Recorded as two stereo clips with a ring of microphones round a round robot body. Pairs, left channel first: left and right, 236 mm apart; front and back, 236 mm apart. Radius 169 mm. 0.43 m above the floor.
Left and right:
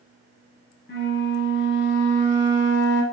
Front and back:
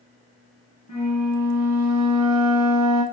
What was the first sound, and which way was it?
A flute, 45° left.